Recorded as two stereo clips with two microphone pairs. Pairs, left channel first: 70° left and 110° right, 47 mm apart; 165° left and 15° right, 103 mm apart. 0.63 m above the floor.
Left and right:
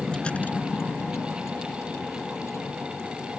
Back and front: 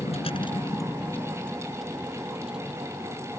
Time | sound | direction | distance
0.0 | a vehicle | 150° left | ?